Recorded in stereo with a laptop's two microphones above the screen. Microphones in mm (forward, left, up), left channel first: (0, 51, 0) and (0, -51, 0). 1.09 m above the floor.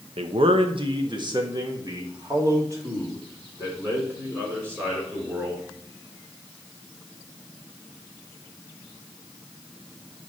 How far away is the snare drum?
No snare drum in this recording.